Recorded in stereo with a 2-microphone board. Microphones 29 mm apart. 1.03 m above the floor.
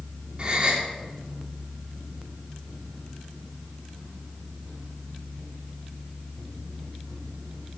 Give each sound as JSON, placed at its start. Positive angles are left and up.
{"t": 0.4, "sound": "a gasp", "side_deg": -35, "distance_m": 1.4}